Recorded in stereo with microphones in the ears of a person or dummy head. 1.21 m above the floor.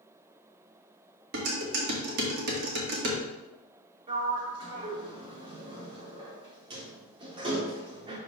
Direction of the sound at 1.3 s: 60° right (ahead or behind).